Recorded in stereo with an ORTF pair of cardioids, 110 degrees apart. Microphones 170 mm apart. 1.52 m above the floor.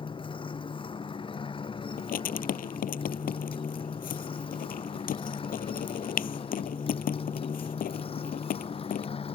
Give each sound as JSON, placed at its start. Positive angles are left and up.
{"t": 0.0, "sound": "a motorcycle", "azimuth_deg": 30}
{"t": 2.0, "sound": "writing", "azimuth_deg": 60}